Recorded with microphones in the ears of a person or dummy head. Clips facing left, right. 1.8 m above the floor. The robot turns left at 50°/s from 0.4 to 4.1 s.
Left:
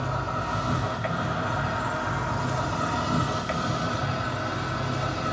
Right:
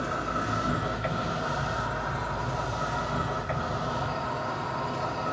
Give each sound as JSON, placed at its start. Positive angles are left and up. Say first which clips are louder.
{"t": 0.0, "sound": "an insect", "louder": "even", "azimuth_deg": -150, "distance_m": 2.0}